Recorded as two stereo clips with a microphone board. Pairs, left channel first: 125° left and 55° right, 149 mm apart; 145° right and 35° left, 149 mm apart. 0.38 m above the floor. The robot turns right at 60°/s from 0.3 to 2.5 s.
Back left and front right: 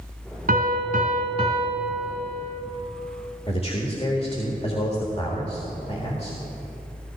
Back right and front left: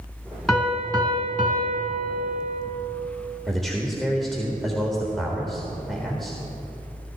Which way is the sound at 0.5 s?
60° right.